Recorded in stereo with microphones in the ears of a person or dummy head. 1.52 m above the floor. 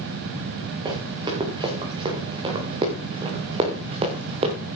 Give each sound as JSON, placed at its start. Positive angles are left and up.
{"t": 0.8, "sound": "running footsteps", "side_deg": -20, "distance_m": 6.5}